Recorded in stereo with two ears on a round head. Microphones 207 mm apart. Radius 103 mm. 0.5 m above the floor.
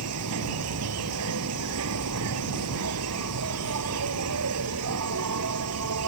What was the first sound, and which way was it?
An insect, 85° right.